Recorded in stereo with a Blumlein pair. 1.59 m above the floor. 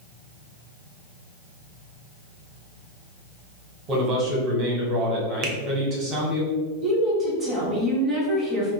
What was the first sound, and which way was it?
A man speaking, 30° right.